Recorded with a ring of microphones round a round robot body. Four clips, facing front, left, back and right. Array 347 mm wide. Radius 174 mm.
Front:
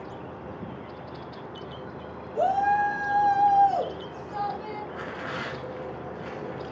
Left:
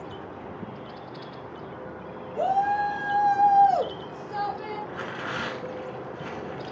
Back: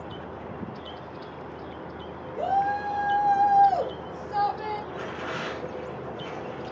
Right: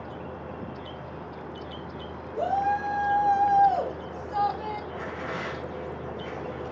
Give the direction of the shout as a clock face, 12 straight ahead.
11 o'clock.